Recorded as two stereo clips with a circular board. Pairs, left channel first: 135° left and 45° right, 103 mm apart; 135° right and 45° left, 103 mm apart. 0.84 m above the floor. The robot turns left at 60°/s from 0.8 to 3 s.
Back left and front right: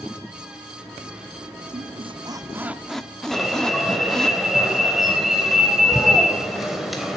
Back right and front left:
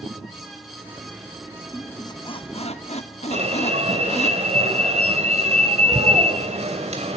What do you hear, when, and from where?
1.7 s a squeak: 65° right, 0.9 m; by 4.3 s 140° right, 0.9 m
3.3 s an alarm: 45° left, 3 m